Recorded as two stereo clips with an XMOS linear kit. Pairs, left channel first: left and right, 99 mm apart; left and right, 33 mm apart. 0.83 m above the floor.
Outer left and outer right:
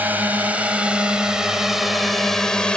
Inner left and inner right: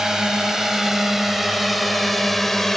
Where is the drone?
20° right (ahead or behind); by 2.8 s 10° left (ahead or behind).